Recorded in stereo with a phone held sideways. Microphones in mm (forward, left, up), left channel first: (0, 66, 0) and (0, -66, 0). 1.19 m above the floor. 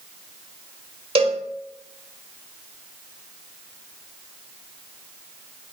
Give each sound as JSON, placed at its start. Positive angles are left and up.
{"t": 1.1, "sound": "a cowbell", "side_deg": -45, "distance_m": 0.9}